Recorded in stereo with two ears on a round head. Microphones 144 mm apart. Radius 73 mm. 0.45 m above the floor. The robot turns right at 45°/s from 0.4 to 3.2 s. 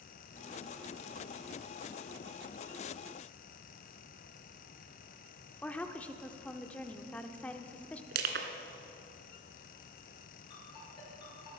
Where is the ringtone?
30° left (ahead or behind), 6 m.